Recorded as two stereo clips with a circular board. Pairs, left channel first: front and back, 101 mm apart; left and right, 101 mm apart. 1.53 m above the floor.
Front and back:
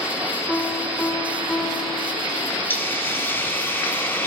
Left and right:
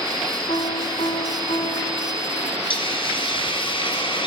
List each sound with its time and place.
0.5 s a piano: 85° left, 5 m
2.7 s a hiss: 70° left, 3 m